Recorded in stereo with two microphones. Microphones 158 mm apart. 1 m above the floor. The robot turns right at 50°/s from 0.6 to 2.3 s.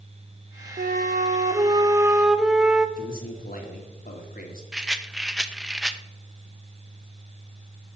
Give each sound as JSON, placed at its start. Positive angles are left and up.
{"t": 0.8, "sound": "a flute", "azimuth_deg": -80, "distance_m": 0.7}
{"t": 3.0, "sound": "a man speaking", "side_deg": 65, "distance_m": 2.0}
{"t": 4.7, "sound": "a rattle", "side_deg": -5, "distance_m": 0.6}